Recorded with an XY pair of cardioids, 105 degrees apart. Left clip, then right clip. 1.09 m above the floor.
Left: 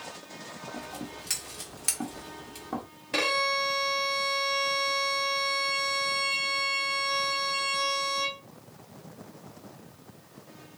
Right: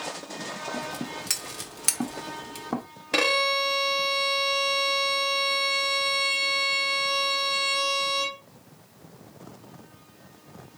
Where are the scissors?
40° right, 1.1 m.